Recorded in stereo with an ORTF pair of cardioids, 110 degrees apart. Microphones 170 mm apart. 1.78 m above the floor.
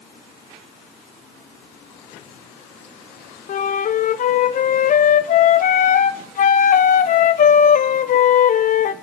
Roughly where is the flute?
Ahead left.